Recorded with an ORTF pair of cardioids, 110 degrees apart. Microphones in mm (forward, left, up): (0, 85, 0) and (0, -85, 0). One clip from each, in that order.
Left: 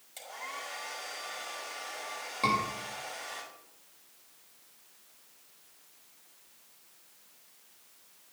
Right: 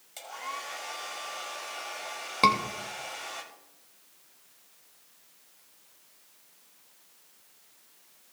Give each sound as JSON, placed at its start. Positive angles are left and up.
{"t": 0.2, "sound": "a hair dryer", "azimuth_deg": -20, "distance_m": 5.5}
{"t": 2.4, "sound": "a scream", "azimuth_deg": -55, "distance_m": 2.5}